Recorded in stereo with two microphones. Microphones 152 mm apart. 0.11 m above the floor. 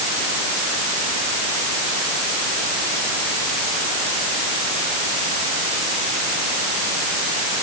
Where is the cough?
No cough in this recording.